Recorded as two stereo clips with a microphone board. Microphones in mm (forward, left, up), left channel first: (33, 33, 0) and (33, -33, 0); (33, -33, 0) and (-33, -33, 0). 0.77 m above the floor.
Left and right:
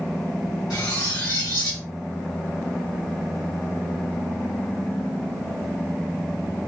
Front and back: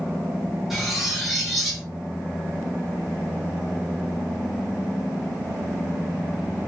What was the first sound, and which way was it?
Cutlery clinking, 95° left.